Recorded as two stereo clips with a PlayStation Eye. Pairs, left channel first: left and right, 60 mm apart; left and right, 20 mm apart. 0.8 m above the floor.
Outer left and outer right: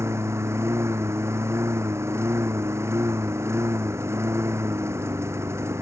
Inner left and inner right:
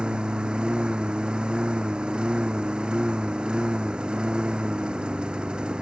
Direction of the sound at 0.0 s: 50° right (ahead or behind).